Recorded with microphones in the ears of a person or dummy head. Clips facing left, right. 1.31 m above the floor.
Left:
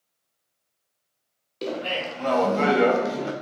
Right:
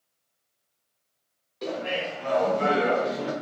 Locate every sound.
1.6 s laughter: 40° left (ahead or behind), 0.9 m; by 3.3 s 55° left (ahead or behind), 0.8 m